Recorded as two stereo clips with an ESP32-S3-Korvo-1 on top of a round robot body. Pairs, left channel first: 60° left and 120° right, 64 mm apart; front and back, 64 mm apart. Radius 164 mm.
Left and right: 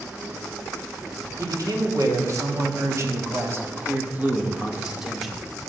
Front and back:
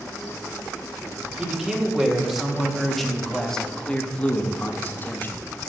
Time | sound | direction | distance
1.4 | a man speaking | 105° right | 2.5 m